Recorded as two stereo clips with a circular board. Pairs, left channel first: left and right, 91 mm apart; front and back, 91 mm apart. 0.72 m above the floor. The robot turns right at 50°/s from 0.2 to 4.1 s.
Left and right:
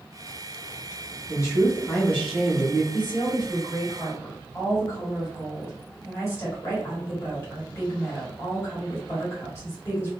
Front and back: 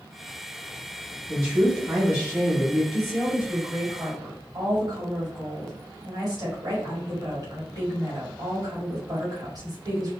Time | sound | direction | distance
1.3 | a man speaking | 95° left | 1.2 m
2.9 | a woman speaking | 90° left | 1.7 m